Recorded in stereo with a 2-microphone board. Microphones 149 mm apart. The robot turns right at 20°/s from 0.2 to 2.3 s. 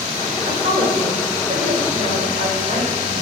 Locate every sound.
0.5 s a woman speaking: 125° right, 1.5 m; by 3.1 s 85° right, 1.5 m